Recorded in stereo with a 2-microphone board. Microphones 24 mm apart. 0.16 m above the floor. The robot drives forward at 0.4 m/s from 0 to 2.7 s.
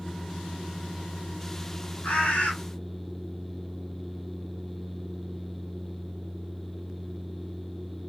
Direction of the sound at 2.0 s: 85° left.